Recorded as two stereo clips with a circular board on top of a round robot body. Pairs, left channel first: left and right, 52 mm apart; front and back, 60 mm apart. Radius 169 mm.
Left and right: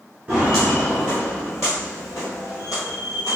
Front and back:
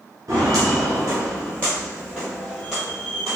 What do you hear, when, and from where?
0.3 s footsteps: 165° right, 0.9 m; by 3.4 s 95° left, 1.7 m